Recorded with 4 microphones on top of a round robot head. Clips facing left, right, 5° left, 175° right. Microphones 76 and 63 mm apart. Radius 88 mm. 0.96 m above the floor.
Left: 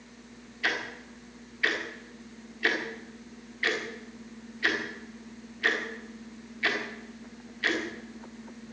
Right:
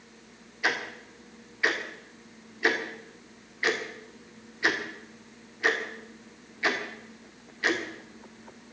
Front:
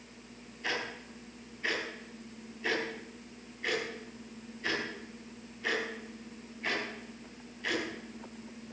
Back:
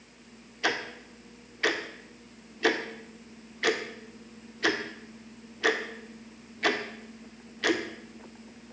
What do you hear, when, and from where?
0.6 s ticking: 165° right, 1.9 m